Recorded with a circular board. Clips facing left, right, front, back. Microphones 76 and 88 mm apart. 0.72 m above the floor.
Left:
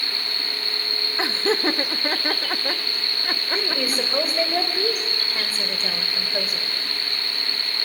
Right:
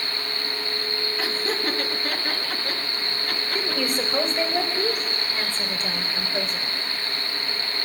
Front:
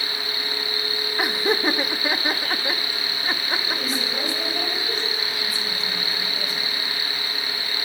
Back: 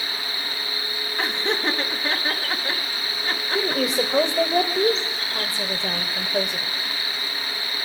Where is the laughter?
70° left, 1.2 m.